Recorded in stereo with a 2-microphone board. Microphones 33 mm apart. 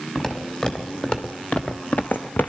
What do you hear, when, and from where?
0.1 s footsteps: 30° left (ahead or behind), 2.5 m; by 2.5 s 70° left (ahead or behind), 0.7 m